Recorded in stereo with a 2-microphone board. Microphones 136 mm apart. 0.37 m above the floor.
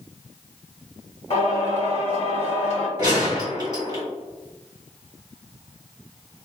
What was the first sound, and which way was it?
Singing, 55° left (ahead or behind).